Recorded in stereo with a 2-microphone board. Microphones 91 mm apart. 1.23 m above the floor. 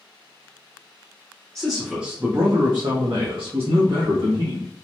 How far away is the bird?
I don't hear a bird.